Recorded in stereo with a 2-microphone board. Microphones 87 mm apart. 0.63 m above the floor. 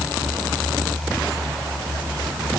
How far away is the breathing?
I don't hear breathing.